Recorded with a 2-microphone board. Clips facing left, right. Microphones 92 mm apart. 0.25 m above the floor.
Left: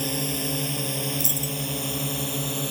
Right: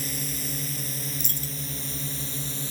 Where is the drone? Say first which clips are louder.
Left 7 dB; 70° left (ahead or behind); by 2.7 s 75° left (ahead or behind).